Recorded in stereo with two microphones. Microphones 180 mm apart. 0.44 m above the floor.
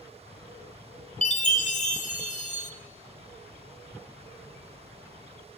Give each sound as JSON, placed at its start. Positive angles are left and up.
{"t": 1.2, "sound": "a chime", "side_deg": 40, "distance_m": 0.8}